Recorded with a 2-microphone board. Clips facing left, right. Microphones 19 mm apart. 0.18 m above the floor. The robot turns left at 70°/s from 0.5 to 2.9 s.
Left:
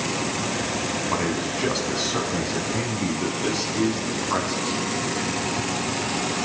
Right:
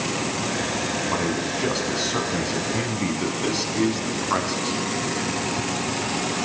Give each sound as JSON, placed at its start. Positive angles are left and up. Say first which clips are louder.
{"t": 1.1, "sound": "a man speaking", "louder": "even", "side_deg": 25, "distance_m": 1.4}